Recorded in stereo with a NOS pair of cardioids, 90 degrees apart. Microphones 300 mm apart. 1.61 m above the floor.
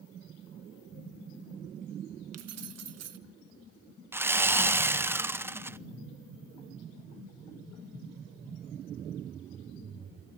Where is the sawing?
10° right, 0.8 m.